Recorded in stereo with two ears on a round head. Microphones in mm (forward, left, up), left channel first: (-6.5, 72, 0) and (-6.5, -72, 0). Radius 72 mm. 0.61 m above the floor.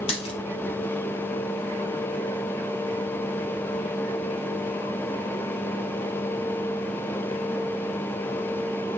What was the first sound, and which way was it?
A dropped coin, 35° left (ahead or behind).